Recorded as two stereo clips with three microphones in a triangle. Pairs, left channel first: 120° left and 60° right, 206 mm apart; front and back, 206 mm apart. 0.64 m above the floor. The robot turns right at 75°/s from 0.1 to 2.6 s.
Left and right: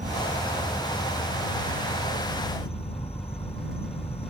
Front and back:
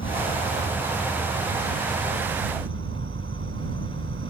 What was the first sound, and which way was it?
An insect, 10° right.